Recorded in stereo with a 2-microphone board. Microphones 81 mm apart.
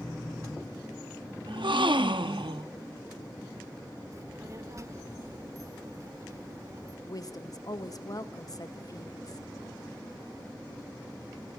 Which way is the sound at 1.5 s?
85° right.